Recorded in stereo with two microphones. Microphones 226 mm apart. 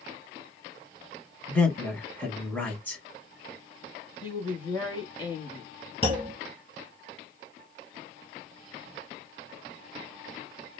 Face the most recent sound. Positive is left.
turn(degrees=-25)  # may be behind; listen again after turning